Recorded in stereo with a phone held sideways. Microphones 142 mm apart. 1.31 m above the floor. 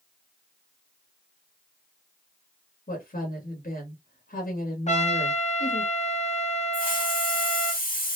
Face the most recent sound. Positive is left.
turn(degrees=75)  # may be behind; listen again after turning